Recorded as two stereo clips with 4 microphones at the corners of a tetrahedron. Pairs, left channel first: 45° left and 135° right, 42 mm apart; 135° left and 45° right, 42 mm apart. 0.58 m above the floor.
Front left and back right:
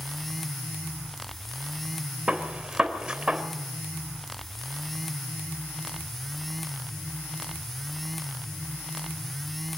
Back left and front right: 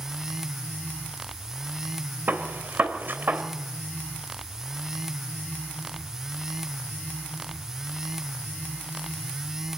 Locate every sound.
2.3 s a gunshot: 65° right, 3 m